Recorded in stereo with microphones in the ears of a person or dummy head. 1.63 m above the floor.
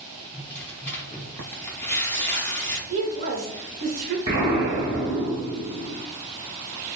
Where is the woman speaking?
40° right (ahead or behind), 0.7 m.